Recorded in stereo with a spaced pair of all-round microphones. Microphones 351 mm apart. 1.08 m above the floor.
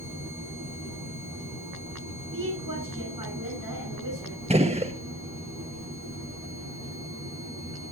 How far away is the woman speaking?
About 7.5 m.